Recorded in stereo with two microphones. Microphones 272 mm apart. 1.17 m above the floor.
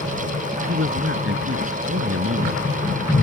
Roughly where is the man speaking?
Right.